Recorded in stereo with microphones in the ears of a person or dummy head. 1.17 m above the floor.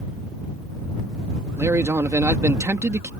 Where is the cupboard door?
I don't hear a cupboard door.